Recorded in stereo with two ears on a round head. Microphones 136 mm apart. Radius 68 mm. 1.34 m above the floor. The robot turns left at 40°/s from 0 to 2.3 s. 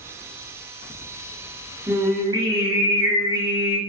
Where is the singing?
25° right (ahead or behind), 1.0 m; by 3.8 s 30° right (ahead or behind), 1.0 m.